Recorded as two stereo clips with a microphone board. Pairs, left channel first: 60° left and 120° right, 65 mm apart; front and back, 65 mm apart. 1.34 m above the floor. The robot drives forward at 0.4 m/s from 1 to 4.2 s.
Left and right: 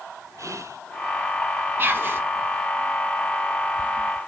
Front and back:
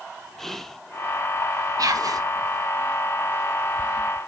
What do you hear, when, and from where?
0.4 s whispering: 85° right, 0.6 m
1.8 s whispering: 175° right, 1.5 m